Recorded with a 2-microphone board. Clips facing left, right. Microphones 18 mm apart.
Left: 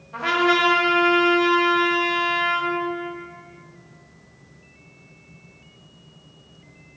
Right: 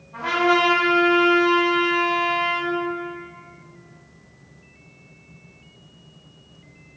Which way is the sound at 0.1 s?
60° left (ahead or behind).